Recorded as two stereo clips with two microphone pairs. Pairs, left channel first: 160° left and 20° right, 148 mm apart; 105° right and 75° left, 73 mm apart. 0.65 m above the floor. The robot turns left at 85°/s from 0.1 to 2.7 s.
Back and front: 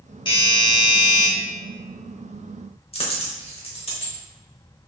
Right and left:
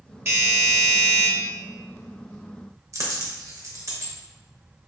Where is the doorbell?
115° left, 1.5 m; by 1.3 s 25° left, 1.5 m.